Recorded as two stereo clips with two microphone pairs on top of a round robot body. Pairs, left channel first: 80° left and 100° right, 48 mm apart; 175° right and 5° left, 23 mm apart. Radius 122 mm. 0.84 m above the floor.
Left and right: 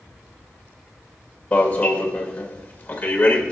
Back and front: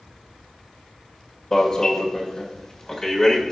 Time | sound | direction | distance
1.5 | an alarm | 130° left | 2.0 m